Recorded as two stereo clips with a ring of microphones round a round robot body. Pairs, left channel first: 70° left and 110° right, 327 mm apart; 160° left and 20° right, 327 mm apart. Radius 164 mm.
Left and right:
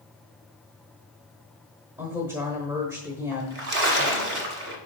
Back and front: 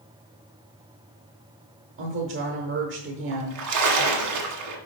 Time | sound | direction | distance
2.0 | a woman speaking | 35° right | 1.1 m
3.3 | a splash | 60° right | 1.6 m